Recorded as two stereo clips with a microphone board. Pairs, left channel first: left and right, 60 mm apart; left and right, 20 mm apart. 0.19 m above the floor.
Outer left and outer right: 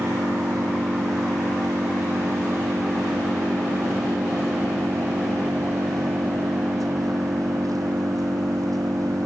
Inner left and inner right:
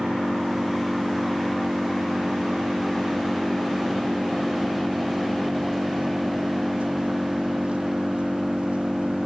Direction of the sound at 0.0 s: 80° right.